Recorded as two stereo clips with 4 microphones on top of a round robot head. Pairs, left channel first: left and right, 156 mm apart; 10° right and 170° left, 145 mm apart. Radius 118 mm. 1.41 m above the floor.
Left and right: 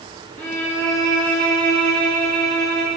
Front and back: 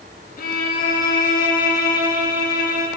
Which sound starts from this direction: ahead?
A violin, at 0.4 s.